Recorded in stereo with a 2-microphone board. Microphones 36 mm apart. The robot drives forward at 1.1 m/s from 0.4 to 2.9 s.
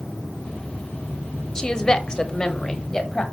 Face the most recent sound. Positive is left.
turn(degrees=15)  # may be behind; listen again after turning